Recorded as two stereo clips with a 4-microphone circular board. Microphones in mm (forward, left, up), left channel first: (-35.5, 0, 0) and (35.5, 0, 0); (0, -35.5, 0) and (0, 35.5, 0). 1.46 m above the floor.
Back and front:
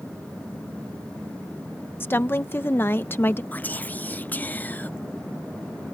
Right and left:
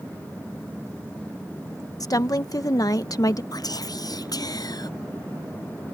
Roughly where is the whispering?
Behind right.